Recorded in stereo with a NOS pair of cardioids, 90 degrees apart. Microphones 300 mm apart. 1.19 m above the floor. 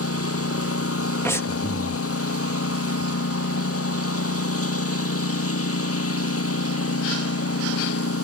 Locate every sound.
0.0 s a lawn mower: 50° left
1.2 s breathing: 10° left